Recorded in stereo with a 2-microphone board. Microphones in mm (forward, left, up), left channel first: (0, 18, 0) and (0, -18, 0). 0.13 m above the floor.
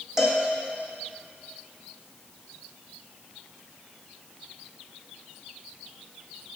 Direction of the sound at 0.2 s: 15° right (ahead or behind).